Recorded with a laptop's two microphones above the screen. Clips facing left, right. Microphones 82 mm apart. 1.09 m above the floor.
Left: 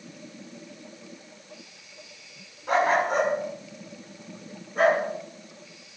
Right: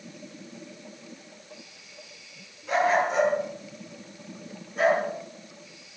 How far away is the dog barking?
About 5.5 m.